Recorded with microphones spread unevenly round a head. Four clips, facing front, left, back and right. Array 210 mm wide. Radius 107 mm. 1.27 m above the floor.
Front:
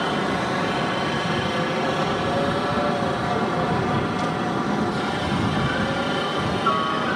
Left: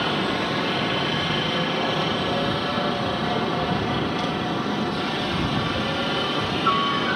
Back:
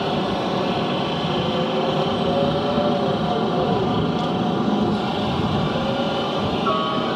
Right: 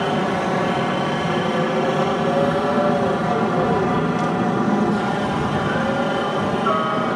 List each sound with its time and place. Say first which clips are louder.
0.0 s a helicopter: right 4 dB, back 1 dB; 120° right; by 7.2 s 125° right